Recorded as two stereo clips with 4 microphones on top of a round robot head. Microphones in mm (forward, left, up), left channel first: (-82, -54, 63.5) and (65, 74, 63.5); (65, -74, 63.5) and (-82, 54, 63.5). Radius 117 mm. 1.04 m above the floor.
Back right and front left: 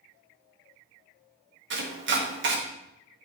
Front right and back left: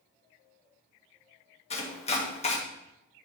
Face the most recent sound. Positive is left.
turn(degrees=15)